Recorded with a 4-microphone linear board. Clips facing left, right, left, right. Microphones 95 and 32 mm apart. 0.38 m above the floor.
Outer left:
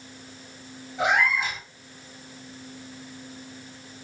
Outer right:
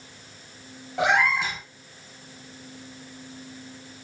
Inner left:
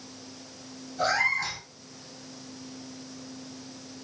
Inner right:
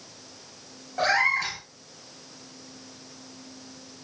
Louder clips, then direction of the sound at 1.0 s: Outer right 1 dB, inner right 3 dB; 85° right.